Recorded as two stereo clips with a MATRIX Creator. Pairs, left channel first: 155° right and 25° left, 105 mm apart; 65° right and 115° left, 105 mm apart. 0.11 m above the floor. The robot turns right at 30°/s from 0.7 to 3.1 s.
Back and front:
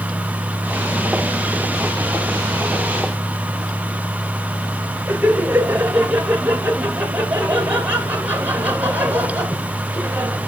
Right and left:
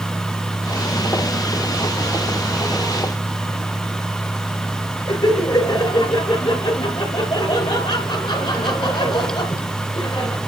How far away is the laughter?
About 2 m.